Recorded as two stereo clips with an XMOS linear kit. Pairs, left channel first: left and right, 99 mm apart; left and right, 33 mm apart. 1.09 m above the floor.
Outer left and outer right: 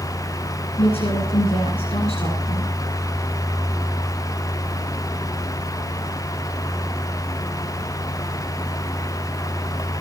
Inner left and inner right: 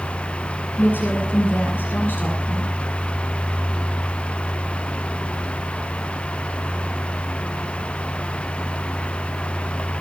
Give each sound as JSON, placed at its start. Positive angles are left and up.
{"t": 0.8, "sound": "a woman speaking", "side_deg": 85, "distance_m": 10.0}